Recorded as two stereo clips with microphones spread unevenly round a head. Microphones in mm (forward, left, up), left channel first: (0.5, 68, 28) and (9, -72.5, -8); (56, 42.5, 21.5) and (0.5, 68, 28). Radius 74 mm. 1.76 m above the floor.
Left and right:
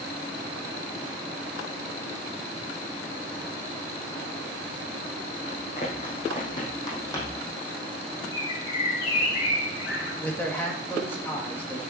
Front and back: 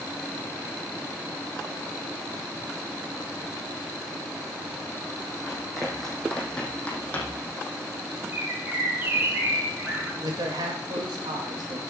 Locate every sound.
5.5 s running footsteps: 70° left, 4 m; by 7.5 s 25° left, 3 m
8.3 s a bird: 100° left, 7 m
10.2 s a man speaking: 170° left, 2.5 m